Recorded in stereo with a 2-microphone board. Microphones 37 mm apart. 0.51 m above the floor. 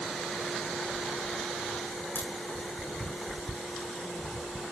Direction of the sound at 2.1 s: 75° left (ahead or behind).